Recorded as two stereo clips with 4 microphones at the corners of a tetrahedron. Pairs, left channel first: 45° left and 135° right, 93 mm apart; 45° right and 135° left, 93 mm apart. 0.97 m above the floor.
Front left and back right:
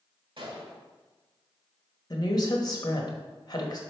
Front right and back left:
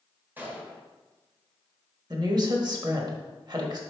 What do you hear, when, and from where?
0.4 s a gunshot: 155° right, 1.3 m
2.1 s a woman speaking: 90° left, 1.3 m